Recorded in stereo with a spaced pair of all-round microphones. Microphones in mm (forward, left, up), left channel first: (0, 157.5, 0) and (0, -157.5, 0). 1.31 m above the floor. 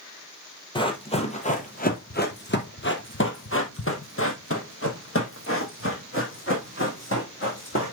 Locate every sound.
0.8 s running footsteps: 15° left (ahead or behind), 1.6 m; by 8.0 s 40° left (ahead or behind), 3.5 m